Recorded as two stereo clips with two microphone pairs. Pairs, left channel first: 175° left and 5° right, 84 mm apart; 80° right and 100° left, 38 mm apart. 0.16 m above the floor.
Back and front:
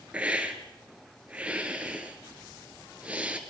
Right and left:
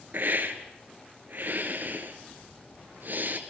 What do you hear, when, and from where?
0.1 s a hiss: 70° left, 2 m